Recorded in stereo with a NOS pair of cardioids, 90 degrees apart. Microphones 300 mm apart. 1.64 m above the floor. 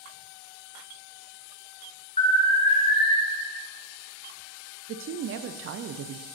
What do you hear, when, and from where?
2.2 s an alarm: 20° left, 1.4 m
4.9 s a woman speaking: 50° right, 0.5 m